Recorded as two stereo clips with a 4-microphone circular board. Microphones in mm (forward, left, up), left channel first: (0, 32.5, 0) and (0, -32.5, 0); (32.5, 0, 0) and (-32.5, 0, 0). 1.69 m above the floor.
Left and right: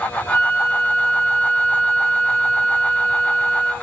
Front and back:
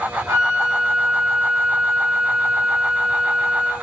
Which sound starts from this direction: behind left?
A flute, at 0.3 s.